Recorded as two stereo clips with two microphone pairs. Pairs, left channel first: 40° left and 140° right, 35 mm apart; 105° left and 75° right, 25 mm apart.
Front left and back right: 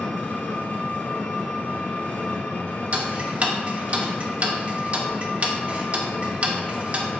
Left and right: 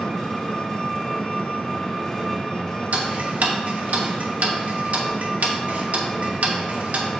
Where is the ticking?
90° right, 1.1 m.